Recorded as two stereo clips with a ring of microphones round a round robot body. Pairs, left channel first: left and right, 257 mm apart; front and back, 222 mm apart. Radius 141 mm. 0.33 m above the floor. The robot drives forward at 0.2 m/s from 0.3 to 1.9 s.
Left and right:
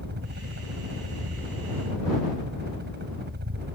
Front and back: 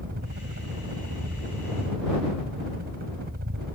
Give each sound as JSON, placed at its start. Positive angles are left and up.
{"t": 0.0, "sound": "a helicopter", "azimuth_deg": -135}